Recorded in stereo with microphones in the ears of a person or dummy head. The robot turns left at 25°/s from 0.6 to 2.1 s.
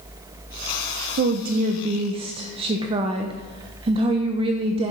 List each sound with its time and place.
1.2 s a woman speaking: 55° right (ahead or behind), 0.5 m; by 4.9 s 30° right (ahead or behind), 0.5 m